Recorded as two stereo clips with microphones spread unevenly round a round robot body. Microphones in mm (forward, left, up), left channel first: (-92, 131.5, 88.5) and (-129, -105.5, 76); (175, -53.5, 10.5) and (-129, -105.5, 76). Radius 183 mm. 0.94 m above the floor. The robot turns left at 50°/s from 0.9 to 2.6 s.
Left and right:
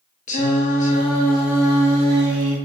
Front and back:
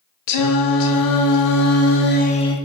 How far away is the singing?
About 1.1 m.